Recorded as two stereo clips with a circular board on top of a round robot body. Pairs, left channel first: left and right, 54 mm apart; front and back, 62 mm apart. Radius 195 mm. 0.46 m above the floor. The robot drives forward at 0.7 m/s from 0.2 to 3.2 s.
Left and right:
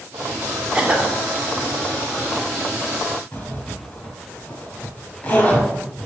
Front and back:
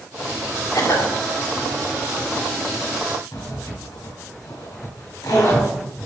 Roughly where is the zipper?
Ahead left.